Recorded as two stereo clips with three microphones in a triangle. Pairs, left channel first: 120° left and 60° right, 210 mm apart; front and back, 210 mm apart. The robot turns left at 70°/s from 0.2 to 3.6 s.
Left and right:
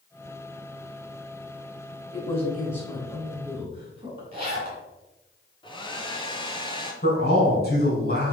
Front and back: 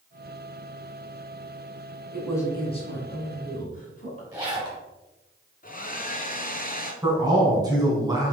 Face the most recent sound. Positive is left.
turn(degrees=115)